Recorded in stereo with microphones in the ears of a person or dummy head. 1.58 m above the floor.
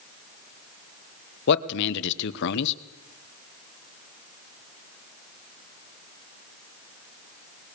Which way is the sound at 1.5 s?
65° left (ahead or behind).